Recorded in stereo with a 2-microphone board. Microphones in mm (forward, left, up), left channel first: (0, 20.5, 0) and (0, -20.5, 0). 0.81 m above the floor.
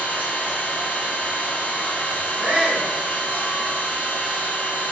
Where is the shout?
20° right (ahead or behind), 0.6 m.